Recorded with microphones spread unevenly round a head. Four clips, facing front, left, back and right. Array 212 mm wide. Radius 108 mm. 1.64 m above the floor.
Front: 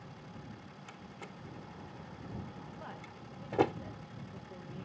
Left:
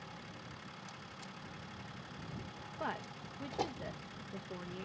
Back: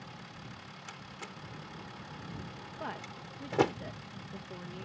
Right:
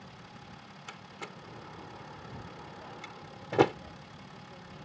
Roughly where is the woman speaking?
Behind left.